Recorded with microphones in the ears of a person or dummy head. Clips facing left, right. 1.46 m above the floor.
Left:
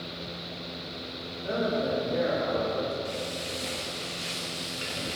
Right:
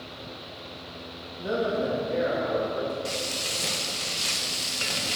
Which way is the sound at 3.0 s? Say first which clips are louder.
Even; 65° right (ahead or behind).